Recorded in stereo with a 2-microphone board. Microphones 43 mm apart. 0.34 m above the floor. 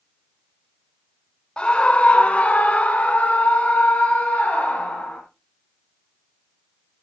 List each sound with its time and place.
1.6 s a scream: 20° left (ahead or behind), 0.8 m; by 5.2 s 30° left (ahead or behind), 2 m